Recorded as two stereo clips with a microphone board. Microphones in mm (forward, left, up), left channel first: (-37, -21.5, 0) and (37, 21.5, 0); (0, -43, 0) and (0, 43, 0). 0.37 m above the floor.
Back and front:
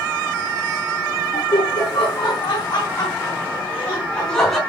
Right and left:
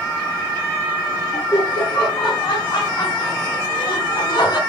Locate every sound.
1.3 s laughter: 135° right, 5 m; by 4.6 s 65° right, 2.5 m